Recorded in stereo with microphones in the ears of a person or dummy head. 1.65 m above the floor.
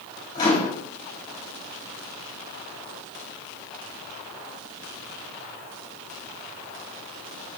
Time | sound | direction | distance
0.3 | a microwave | 25° left (ahead or behind) | 3 m